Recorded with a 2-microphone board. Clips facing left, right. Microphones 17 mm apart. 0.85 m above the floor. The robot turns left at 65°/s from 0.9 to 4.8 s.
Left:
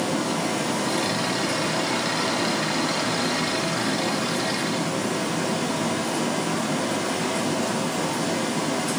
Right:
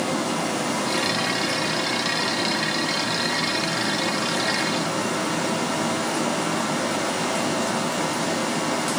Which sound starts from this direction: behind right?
Running water, at 0.0 s.